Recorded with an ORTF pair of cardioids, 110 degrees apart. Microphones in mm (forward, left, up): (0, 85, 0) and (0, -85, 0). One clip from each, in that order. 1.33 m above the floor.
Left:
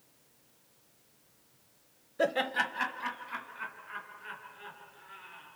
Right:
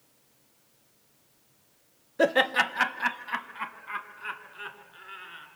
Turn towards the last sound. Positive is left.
turn(degrees=-65)